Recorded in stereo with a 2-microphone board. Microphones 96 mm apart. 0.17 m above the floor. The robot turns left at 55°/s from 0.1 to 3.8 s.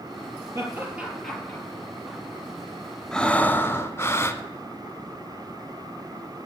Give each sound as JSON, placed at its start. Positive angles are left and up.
{"t": 0.6, "sound": "laughter", "side_deg": -35, "distance_m": 3.0}
{"t": 3.1, "sound": "breathing", "azimuth_deg": 170, "distance_m": 0.7}